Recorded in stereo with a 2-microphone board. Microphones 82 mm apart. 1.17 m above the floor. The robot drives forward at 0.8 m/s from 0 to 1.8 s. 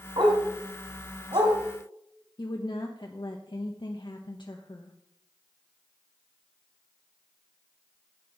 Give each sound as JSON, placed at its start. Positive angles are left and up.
{"t": 0.2, "sound": "a dog barking", "side_deg": -60, "distance_m": 2.5}
{"t": 2.4, "sound": "a woman speaking", "side_deg": 65, "distance_m": 1.1}